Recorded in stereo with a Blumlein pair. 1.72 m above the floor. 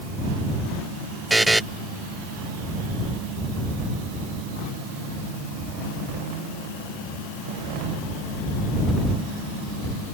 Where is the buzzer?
5° right.